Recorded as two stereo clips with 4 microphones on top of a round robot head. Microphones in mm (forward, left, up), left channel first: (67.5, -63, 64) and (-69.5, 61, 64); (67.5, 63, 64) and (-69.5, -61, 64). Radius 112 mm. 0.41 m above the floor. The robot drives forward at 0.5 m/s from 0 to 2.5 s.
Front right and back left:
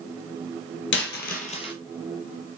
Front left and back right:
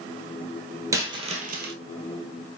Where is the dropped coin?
65° right, 0.7 m; by 1.7 s 105° right, 0.6 m.